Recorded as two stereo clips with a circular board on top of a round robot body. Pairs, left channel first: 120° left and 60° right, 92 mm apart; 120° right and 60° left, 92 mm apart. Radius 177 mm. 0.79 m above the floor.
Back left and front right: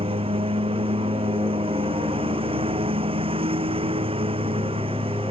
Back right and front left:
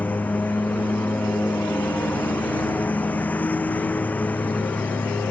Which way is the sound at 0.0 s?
45° right.